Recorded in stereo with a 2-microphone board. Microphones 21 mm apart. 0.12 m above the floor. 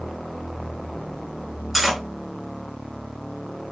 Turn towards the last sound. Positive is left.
turn(degrees=0)  # may be behind; listen again after turning